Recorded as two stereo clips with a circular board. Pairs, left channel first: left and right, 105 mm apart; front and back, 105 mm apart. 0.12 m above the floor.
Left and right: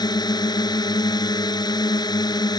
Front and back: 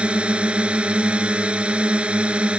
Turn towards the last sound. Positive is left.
turn(degrees=105)